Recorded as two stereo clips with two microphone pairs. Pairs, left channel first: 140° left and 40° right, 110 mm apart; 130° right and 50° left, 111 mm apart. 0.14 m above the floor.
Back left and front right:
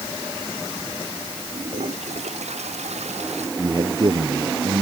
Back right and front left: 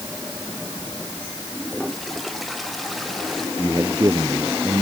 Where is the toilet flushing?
40° right.